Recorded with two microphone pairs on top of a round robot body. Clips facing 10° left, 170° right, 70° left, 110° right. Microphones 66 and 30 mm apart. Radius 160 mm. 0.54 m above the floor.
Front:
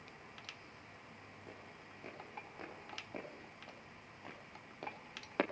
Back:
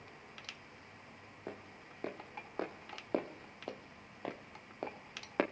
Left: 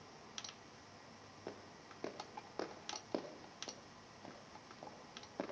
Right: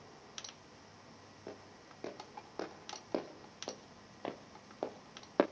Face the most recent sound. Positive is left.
turn(degrees=-90)